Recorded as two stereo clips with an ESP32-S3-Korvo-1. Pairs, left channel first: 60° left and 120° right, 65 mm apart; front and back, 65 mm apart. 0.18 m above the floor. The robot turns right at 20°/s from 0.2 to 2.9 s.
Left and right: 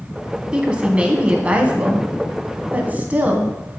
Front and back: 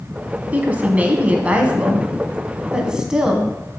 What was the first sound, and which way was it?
A woman speaking, 165° right.